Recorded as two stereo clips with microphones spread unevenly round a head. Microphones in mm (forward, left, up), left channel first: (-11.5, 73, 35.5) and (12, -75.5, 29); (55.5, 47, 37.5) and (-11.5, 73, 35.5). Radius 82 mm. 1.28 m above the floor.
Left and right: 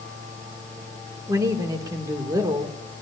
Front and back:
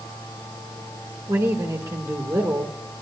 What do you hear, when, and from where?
0.0 s a fan: 40° right, 8.5 m
1.3 s a man speaking: 150° right, 2 m